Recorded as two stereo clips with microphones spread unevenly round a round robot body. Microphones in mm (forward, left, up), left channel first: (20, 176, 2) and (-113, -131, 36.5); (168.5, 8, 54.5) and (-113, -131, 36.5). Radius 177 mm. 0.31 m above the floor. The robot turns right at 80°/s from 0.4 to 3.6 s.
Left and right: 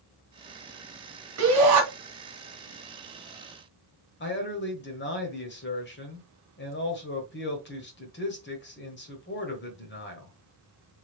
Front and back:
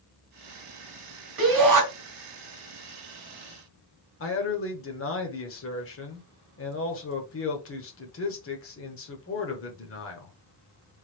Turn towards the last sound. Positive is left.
turn(degrees=45)